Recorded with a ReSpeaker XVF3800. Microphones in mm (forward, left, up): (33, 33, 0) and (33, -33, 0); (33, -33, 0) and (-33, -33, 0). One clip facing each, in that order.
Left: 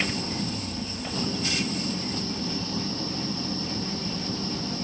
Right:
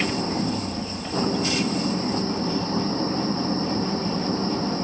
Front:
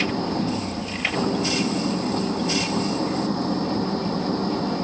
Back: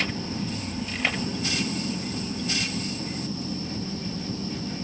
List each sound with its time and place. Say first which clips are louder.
0.0 s an engine running: right 5 dB, front 6 dB; 35° right